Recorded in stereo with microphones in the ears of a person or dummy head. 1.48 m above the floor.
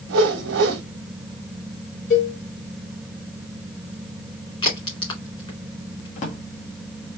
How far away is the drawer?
About 1.4 m.